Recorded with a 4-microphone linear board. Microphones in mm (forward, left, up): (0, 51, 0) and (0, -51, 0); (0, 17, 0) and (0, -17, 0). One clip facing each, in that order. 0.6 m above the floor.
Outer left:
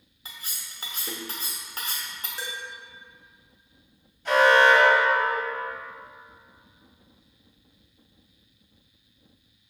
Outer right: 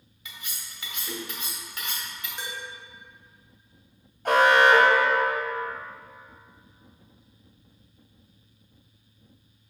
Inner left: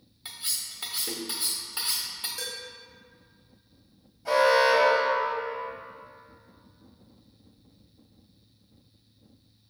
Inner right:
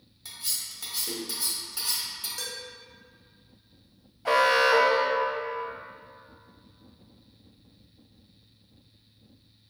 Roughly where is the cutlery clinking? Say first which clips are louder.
Even, inner left 1 dB; left.